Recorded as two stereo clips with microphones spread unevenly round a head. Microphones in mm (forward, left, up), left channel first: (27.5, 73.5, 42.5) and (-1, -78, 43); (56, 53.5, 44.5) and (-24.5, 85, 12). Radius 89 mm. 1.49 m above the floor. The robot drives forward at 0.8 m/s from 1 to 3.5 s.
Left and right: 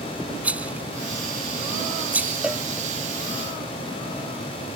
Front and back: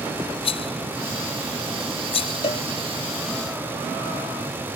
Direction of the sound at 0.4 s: 20° right.